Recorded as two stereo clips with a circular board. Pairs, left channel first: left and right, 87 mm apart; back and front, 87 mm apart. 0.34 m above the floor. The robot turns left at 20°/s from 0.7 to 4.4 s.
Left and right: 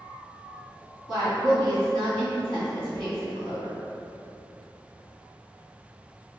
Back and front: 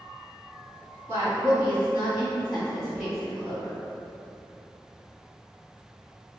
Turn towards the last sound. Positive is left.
turn(degrees=-115)